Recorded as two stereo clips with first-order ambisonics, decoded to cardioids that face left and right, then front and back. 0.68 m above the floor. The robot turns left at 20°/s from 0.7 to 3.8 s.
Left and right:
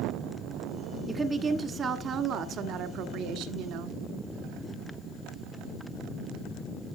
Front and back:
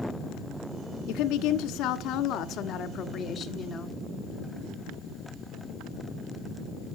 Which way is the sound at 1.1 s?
15° right.